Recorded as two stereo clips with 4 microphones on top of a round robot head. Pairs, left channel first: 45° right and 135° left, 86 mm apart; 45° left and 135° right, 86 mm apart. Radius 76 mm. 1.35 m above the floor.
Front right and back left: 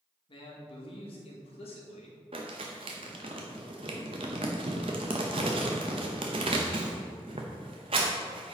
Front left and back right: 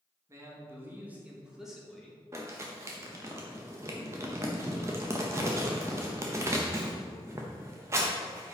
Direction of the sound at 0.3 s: 75° right.